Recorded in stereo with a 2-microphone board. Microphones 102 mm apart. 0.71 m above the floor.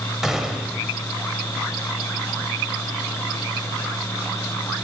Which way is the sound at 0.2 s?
5° right (ahead or behind).